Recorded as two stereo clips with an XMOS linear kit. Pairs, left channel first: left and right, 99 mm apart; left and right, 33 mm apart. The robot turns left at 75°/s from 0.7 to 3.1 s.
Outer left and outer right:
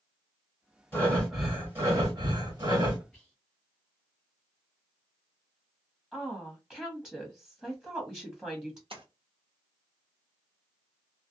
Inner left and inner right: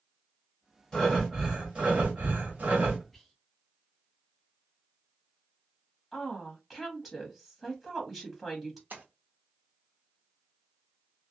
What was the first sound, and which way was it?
Breathing, 30° left.